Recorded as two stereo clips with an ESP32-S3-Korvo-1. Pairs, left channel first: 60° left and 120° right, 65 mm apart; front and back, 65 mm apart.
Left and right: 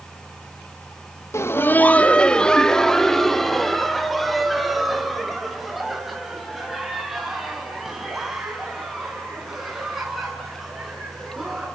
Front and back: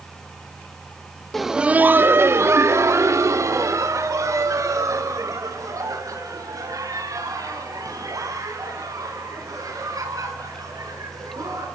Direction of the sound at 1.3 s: 85° left.